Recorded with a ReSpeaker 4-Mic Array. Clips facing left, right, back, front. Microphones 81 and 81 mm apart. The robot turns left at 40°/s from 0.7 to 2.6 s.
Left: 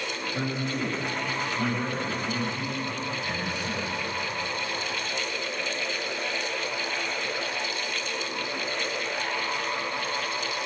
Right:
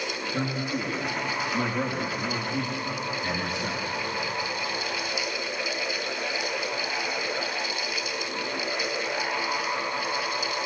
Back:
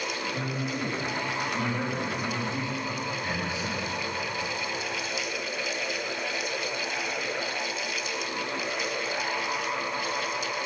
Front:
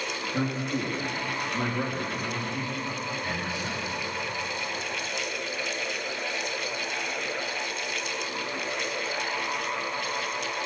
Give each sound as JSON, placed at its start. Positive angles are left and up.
{"t": 0.3, "sound": "a man speaking", "azimuth_deg": -35, "distance_m": 9.0}